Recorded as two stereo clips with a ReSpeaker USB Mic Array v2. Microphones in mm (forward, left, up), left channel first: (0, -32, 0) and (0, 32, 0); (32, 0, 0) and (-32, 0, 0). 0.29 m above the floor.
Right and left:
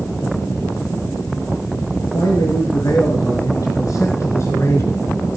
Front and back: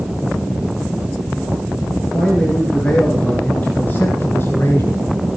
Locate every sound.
2.1 s a man speaking: 75° right, 5.5 m; by 5.4 s 35° right, 4 m